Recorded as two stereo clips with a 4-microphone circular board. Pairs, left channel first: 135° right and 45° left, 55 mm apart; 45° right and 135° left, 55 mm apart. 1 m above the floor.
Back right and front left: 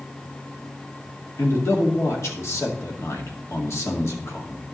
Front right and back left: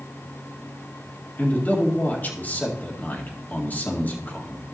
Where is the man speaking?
100° right, 1.8 m.